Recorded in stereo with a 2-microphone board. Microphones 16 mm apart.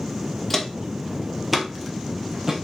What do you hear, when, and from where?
0.5 s footsteps: 10° left (ahead or behind), 1.1 m; by 2.6 s 25° right (ahead or behind), 1.4 m